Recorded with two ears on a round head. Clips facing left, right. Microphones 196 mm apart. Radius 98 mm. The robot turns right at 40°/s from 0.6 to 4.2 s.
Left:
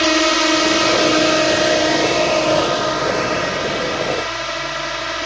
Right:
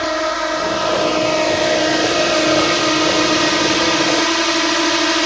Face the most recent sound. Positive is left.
turn(degrees=-85)